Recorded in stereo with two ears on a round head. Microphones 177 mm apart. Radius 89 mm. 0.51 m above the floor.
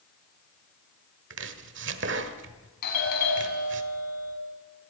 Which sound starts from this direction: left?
A doorbell, at 2.8 s.